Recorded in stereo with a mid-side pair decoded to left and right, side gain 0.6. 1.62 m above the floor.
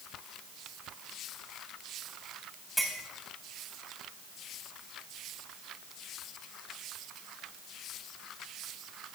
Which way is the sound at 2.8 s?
5° right.